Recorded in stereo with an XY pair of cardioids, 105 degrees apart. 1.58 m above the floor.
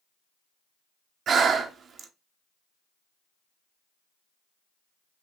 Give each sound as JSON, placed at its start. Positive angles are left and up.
{"t": 1.3, "sound": "breathing", "azimuth_deg": -60, "distance_m": 0.8}